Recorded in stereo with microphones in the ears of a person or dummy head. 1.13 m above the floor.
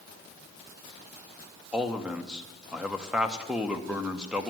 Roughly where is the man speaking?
Centre.